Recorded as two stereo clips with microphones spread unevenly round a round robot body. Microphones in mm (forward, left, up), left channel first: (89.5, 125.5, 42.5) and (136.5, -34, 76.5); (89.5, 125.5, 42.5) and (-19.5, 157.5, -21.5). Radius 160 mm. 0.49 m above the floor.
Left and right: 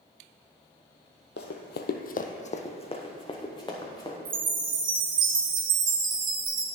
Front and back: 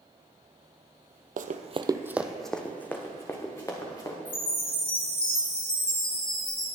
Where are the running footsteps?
145° left, 0.7 m; by 4.2 s 40° left, 3 m.